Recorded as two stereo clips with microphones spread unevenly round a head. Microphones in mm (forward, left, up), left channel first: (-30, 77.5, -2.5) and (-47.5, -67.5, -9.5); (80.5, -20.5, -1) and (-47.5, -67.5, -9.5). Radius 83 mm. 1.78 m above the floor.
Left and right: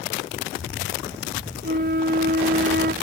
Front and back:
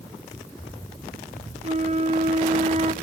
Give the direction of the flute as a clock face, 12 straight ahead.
4 o'clock.